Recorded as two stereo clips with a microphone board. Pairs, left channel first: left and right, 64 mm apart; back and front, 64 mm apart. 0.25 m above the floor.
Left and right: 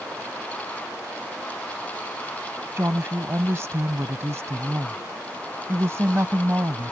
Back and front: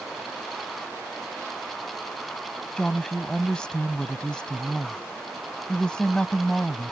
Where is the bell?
I don't hear a bell.